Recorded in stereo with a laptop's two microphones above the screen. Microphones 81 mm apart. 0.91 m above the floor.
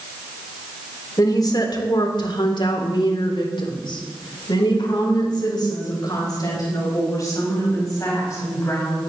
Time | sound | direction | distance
1.2 | a woman speaking | 50° left (ahead or behind) | 3 m